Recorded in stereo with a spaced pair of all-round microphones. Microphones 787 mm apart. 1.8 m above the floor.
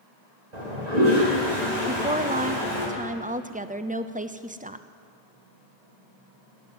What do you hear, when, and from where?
0.5 s a toilet flushing: 55° right (ahead or behind), 3 m
1.9 s a woman speaking: 10° right (ahead or behind), 0.5 m